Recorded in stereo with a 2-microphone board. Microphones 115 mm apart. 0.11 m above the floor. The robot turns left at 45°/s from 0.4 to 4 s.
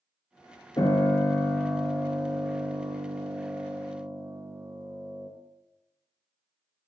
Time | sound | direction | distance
0.8 | a piano | 50° left | 0.5 m